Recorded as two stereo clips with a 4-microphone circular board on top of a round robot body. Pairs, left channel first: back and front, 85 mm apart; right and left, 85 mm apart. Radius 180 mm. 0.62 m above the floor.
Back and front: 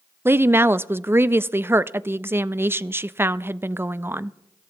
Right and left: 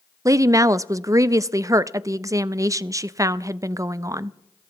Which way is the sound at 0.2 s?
55° left.